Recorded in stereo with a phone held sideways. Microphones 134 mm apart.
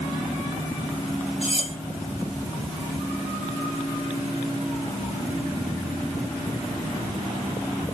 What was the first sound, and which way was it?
Cutlery clinking, 45° left (ahead or behind).